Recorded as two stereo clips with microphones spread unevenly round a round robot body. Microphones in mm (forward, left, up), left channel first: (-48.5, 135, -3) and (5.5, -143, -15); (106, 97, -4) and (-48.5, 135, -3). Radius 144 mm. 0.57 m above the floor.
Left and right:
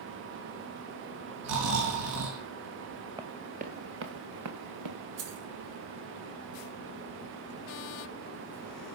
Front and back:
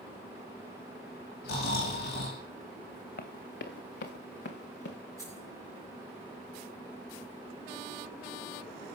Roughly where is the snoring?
Ahead right.